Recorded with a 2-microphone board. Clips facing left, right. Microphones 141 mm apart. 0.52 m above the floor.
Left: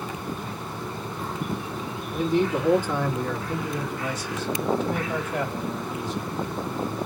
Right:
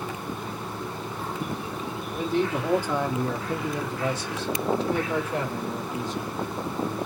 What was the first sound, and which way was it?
A man speaking, centre (ahead or behind).